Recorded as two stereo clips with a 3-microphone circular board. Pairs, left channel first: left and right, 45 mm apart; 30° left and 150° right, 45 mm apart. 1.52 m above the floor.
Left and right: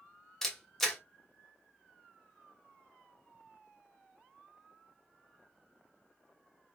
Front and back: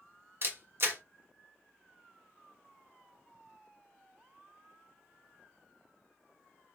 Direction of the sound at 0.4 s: 175° left.